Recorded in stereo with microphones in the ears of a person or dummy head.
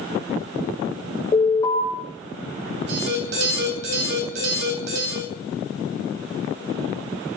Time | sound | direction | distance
1.3 | an alarm | 20° left (ahead or behind) | 6.5 m
2.9 | an alarm | 75° right (ahead or behind) | 4.5 m